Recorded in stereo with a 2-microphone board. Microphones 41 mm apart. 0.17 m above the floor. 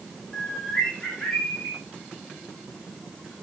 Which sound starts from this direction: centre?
A bird, at 0.3 s.